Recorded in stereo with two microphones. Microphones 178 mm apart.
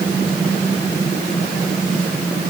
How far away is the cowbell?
No cowbell in this recording.